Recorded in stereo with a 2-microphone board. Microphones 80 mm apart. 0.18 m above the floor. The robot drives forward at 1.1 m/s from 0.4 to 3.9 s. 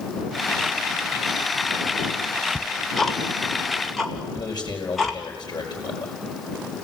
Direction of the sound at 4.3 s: 55° left (ahead or behind).